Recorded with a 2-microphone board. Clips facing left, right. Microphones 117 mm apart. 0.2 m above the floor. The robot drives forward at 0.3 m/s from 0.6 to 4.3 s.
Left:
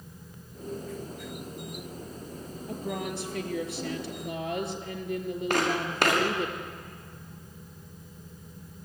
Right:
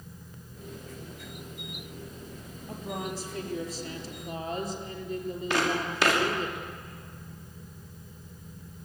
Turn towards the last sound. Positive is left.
turn(degrees=55)  # may be behind; listen again after turning